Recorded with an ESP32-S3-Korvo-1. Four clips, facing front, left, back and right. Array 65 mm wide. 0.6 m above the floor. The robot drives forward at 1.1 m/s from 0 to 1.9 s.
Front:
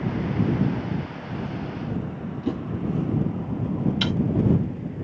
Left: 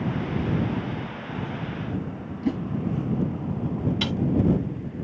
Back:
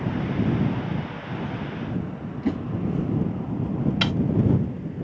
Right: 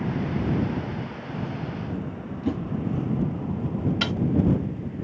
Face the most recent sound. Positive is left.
turn(degrees=-150)